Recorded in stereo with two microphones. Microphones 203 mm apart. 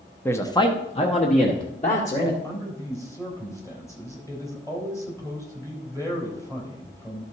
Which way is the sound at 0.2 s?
10° left (ahead or behind).